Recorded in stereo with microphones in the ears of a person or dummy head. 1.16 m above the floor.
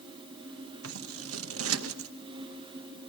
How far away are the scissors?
About 1.0 m.